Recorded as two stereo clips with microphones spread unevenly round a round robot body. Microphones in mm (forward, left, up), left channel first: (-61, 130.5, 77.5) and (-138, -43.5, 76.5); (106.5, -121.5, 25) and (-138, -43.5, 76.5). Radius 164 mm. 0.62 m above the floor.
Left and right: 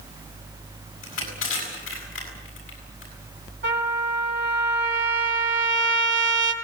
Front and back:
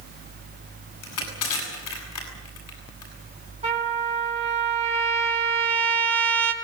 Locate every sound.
1.0 s crushing: 10° left, 7.5 m
3.6 s a trumpet: 130° right, 4.5 m